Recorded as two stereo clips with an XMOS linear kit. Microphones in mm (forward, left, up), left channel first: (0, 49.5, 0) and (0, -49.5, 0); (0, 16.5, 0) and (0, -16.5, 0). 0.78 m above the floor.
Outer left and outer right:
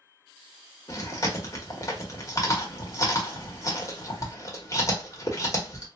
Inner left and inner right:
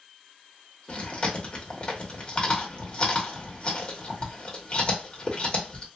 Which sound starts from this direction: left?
Chewing, at 0.9 s.